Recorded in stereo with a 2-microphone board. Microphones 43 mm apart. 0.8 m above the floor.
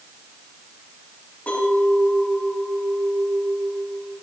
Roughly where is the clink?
Left.